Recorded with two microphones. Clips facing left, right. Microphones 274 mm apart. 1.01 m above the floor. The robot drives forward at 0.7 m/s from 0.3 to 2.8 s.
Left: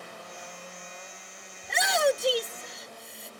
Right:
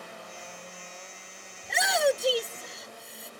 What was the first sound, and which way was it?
A shout, centre (ahead or behind).